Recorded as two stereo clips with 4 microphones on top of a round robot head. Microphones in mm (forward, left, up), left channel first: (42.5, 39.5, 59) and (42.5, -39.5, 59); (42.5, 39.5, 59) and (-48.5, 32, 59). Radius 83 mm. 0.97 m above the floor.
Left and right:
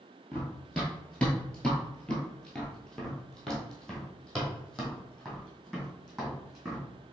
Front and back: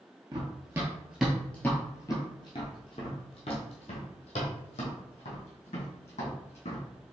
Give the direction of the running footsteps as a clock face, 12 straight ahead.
6 o'clock.